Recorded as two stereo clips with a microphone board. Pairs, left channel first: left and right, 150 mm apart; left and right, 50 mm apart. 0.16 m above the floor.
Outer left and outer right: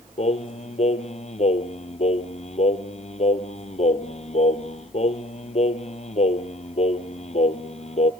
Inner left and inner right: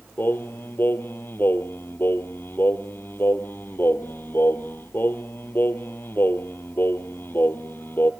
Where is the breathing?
No breathing in this recording.